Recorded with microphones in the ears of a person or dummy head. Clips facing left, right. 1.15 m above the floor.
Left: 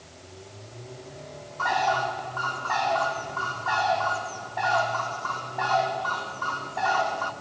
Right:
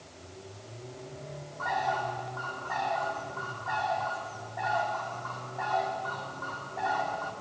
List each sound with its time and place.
1.6 s a bird: 80° left, 2.5 m